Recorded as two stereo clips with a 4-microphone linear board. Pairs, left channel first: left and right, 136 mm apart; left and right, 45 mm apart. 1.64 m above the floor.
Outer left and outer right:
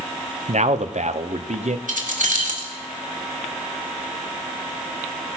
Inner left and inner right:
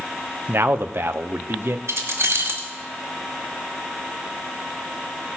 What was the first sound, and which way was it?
A man speaking, 60° right (ahead or behind).